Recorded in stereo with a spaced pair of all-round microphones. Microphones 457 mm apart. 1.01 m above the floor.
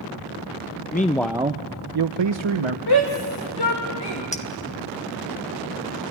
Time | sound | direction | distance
0.9 | a man speaking | 20° left (ahead or behind) | 0.7 m
2.9 | a shout | 50° left (ahead or behind) | 2 m
4.3 | a clink | 15° left (ahead or behind) | 1.2 m